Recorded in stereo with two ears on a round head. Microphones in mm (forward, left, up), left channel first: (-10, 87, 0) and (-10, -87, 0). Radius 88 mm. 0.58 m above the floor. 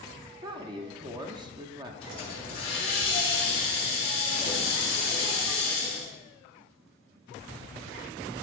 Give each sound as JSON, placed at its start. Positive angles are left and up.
{"t": 0.4, "sound": "a woman speaking", "side_deg": -25, "distance_m": 0.6}
{"t": 2.0, "sound": "a hiss", "side_deg": 30, "distance_m": 2.5}